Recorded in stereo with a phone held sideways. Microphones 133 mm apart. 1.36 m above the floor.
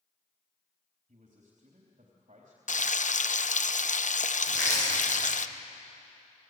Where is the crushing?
60° left (ahead or behind), 9.5 m.